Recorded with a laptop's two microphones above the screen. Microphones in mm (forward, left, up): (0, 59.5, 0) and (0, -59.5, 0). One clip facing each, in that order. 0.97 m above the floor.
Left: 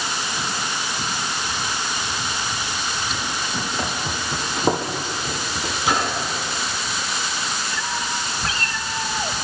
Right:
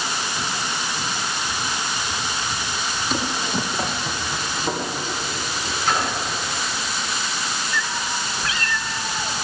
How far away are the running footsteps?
About 1.9 m.